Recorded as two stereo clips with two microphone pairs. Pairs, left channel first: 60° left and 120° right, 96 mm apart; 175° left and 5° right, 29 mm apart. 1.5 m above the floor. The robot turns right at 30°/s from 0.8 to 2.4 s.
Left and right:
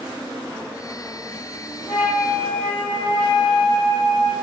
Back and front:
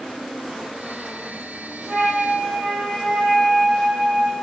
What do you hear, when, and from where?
1.9 s a flute: 40° right, 1.5 m; by 4.3 s 25° right, 1.5 m